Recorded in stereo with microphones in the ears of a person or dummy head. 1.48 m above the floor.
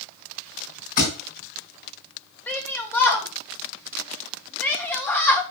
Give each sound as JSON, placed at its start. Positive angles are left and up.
{"t": 1.0, "sound": "a thud", "side_deg": 50, "distance_m": 3.0}
{"t": 2.5, "sound": "a shout", "side_deg": 15, "distance_m": 1.8}